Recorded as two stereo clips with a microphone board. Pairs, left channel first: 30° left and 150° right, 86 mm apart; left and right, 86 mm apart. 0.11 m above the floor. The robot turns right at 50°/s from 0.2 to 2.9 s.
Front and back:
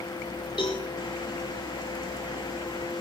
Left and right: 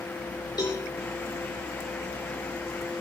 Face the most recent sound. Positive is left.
turn(degrees=165)